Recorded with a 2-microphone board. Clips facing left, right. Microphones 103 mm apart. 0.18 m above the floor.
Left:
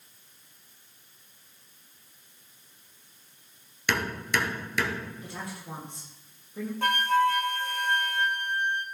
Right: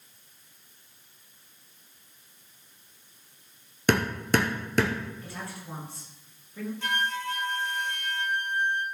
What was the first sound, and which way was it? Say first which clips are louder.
Hammering: right 5 dB; 45° right (ahead or behind).